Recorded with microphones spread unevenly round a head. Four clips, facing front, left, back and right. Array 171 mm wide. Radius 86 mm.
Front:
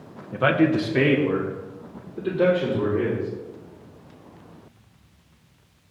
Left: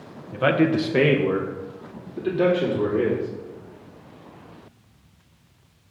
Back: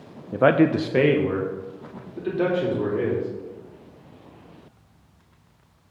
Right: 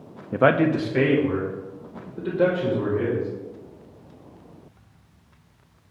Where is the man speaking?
115° right, 0.5 m; by 3.3 s 125° left, 4 m.